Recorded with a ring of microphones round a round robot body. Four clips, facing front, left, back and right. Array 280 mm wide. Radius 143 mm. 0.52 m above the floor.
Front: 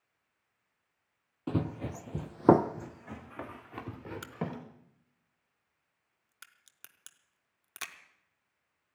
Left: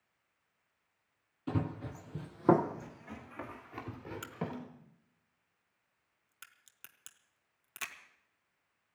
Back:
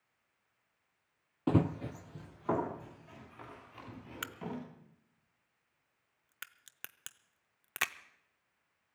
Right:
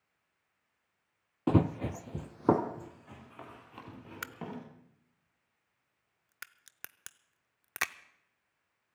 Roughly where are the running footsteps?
Behind right.